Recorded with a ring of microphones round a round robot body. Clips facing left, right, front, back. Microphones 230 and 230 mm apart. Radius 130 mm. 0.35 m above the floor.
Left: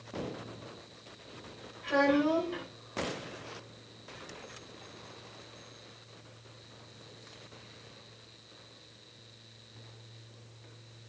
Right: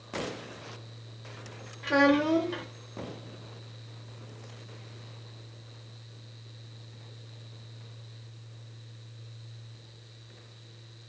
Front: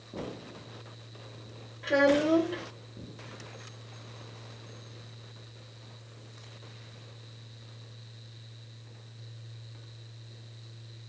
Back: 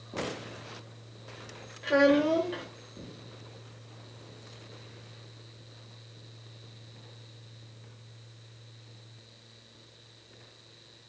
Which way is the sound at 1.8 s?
90° right.